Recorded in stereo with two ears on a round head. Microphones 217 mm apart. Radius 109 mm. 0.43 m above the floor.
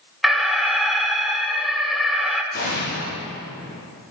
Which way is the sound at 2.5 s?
40° left (ahead or behind).